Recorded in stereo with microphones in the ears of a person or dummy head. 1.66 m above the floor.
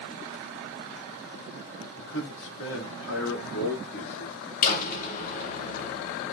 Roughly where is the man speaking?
Left.